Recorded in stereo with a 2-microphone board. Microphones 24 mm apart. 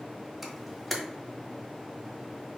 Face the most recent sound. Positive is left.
turn(degrees=0)  # may be behind; listen again after turning